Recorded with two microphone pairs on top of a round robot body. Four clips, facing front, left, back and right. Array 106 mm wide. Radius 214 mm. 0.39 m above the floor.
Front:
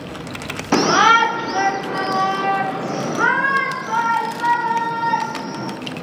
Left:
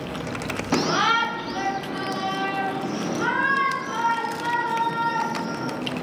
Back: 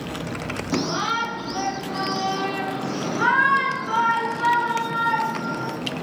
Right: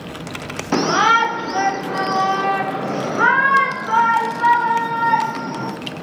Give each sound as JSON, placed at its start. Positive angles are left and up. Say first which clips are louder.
{"t": 0.7, "sound": "a shout", "louder": "right 6 dB, front 12 dB", "azimuth_deg": -20, "distance_m": 1.6}